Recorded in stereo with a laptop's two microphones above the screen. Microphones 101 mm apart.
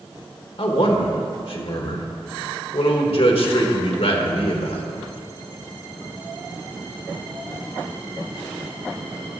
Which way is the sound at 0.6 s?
70° left (ahead or behind).